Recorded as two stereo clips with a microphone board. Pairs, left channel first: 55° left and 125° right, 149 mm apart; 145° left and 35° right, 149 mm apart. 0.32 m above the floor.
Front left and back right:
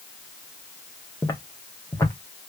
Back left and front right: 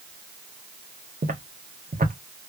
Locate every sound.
1.2 s footsteps: 15° right, 1.3 m